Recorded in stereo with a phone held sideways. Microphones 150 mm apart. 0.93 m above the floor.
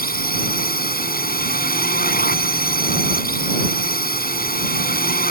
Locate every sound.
0.0 s a drone: 85° left